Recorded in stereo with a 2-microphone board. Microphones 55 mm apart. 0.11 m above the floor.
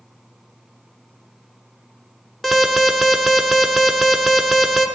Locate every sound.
2.4 s an alarm: centre (ahead or behind), 0.8 m